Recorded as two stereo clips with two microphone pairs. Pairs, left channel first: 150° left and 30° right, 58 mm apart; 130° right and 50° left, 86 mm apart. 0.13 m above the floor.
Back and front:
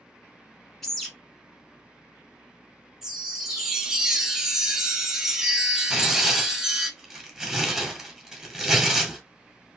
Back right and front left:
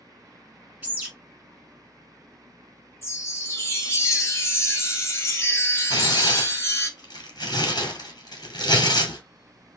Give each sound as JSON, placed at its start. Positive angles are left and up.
{"t": 0.8, "sound": "a bird", "azimuth_deg": 75, "distance_m": 1.2}
{"t": 3.0, "sound": "a chime", "azimuth_deg": -100, "distance_m": 0.7}
{"t": 5.9, "sound": "tearing paper", "azimuth_deg": -105, "distance_m": 1.5}